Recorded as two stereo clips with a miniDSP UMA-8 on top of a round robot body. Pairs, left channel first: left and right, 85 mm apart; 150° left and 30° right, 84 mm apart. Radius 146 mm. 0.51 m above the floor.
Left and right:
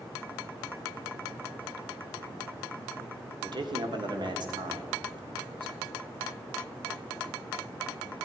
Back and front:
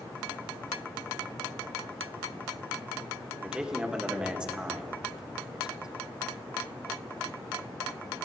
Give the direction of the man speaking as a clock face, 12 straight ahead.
4 o'clock.